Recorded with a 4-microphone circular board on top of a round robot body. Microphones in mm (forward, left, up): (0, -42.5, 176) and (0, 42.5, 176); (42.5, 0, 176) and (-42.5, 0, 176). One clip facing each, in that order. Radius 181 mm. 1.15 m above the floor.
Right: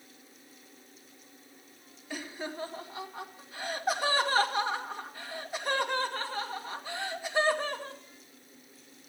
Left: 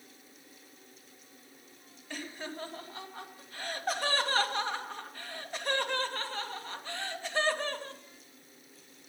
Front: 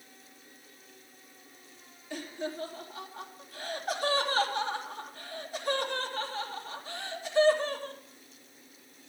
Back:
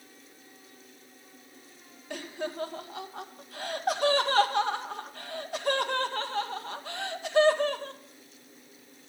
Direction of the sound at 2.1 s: 170° right.